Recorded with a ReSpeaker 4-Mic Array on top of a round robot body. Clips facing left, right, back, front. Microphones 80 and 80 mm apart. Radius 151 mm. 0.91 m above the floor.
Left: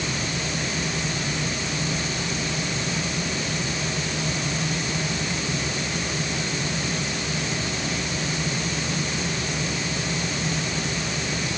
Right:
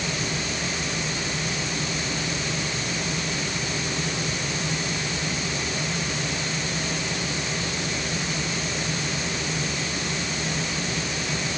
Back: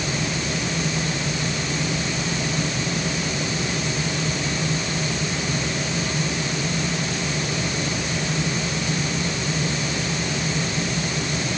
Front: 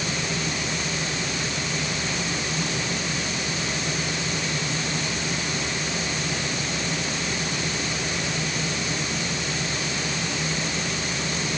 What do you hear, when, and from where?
Only background noise.